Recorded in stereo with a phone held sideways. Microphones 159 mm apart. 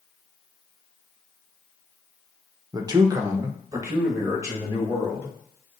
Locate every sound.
2.7 s a man speaking: 25° right (ahead or behind), 0.7 m; by 5.3 s 20° right (ahead or behind), 3 m